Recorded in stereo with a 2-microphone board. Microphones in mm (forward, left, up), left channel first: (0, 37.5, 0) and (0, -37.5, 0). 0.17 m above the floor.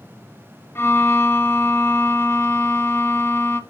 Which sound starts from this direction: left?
A violin, at 0.8 s.